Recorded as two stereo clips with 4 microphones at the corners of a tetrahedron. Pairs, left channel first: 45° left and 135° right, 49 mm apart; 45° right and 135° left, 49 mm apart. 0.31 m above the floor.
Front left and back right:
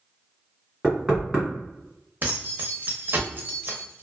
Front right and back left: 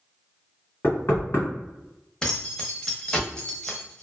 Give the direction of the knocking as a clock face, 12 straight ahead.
2 o'clock.